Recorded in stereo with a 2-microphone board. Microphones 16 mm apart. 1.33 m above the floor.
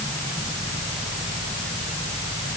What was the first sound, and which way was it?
Only background noise.